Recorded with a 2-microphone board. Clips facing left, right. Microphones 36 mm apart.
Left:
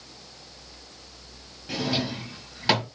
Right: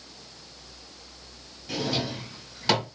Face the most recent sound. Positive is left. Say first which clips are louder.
# left 1 dB
turn(degrees=15)  # may be behind; listen again after turning